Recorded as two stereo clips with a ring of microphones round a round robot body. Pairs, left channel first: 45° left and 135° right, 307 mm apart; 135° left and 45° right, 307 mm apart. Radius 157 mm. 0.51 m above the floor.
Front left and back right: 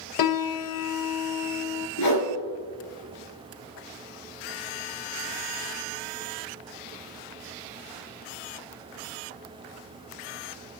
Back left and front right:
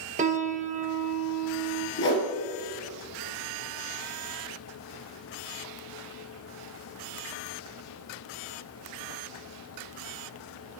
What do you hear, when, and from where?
0.2 s a piano: 20° left, 0.5 m
2.0 s a whoosh: 80° left, 2.5 m